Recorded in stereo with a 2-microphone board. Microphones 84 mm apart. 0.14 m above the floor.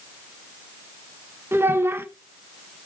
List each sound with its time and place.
1.5 s a child speaking: 25° right (ahead or behind), 1.0 m